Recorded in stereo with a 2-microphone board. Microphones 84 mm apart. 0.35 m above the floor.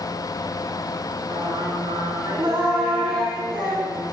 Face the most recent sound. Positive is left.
turn(degrees=-75)  # may be behind; listen again after turning